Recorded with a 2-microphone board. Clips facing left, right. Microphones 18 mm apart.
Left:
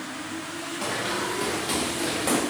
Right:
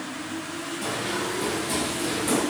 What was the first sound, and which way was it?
Running footsteps, 85° left.